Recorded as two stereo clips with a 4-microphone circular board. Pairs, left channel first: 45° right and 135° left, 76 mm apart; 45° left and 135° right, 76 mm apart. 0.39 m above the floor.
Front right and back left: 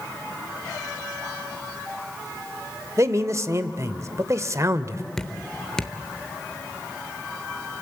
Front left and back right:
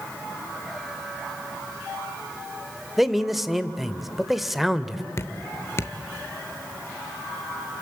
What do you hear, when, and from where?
3.0 s a man speaking: 140° left, 1.0 m
5.2 s dripping: 30° left, 0.8 m